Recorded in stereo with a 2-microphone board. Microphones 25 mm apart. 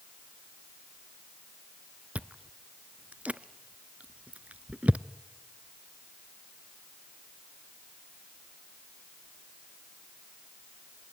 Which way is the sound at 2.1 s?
75° right (ahead or behind).